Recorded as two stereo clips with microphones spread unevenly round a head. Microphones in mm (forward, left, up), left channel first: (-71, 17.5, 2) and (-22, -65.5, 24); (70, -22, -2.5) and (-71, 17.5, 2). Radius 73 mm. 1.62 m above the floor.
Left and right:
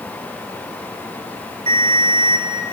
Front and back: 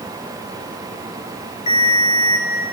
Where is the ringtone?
70° right, 5.5 m.